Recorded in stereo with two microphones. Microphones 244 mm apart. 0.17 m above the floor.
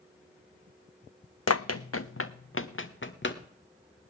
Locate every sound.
1.5 s running footsteps: 80° left, 0.6 m; by 3.4 s 50° left (ahead or behind), 1.6 m